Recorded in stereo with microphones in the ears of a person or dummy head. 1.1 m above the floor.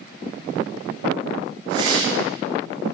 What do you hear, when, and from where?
1.7 s a whoosh: 25° right (ahead or behind), 7 m